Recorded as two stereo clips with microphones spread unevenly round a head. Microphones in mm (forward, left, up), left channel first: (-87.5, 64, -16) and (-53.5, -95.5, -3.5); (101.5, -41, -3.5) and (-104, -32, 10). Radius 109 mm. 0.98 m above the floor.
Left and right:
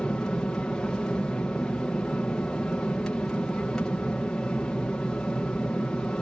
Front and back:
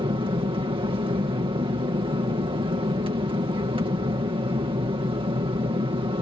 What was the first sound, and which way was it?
An aircraft, 170° left.